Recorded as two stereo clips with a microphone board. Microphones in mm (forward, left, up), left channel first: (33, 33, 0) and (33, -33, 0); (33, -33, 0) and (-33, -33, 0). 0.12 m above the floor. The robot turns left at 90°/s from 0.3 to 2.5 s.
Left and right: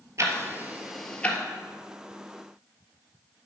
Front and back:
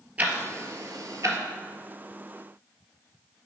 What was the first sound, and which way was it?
Ticking, 115° right.